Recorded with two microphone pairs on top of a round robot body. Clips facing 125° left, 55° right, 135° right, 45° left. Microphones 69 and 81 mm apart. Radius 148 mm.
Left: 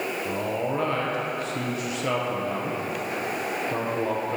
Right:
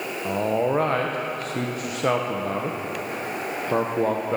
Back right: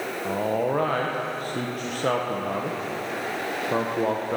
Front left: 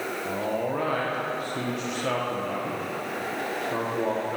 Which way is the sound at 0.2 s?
90° right.